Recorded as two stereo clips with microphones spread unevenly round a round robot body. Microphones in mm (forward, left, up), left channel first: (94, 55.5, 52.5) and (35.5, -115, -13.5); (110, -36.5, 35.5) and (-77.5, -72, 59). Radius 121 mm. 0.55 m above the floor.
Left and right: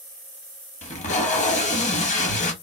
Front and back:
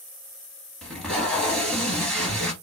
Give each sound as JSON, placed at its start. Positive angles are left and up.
{"t": 0.8, "sound": "tape being pulled", "azimuth_deg": 100, "distance_m": 0.5}